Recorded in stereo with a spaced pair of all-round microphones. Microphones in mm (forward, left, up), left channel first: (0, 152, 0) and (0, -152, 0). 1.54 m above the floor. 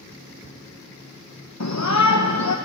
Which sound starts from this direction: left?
A shout, at 1.6 s.